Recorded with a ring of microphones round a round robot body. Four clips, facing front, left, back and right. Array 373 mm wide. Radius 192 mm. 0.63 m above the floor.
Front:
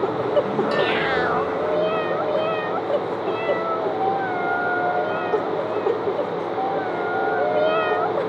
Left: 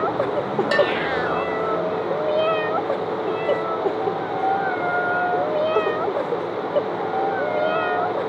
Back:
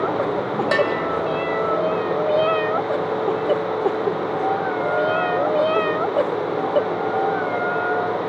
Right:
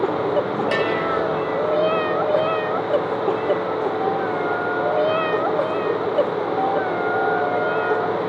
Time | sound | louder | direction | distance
0.7 | a bell | left 4 dB, back 4 dB | 170° left | 2 m